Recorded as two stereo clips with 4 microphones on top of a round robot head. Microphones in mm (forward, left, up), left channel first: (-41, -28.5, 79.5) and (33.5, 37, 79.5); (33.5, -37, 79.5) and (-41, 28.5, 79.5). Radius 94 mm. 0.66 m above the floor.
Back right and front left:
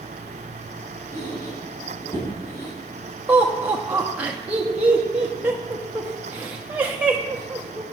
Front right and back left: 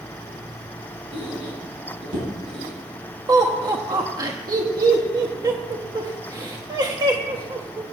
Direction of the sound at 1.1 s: 160° left.